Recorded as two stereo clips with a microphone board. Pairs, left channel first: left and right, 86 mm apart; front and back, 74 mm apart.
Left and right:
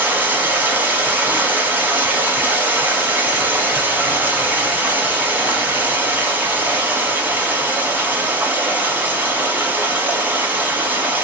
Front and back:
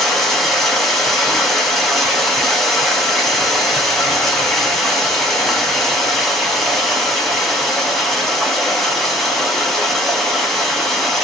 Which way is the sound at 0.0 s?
85° right.